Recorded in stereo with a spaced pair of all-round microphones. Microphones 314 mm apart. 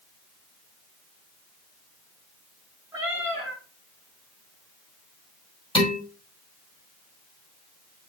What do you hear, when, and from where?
2.9 s a cat meowing: 5° right (ahead or behind), 4.5 m
5.8 s dishes clattering: 15° left (ahead or behind), 4 m